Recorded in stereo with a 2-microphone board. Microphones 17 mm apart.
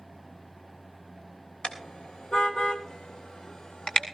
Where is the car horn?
70° left (ahead or behind), 3 m; by 4.1 s 50° left (ahead or behind), 2.5 m.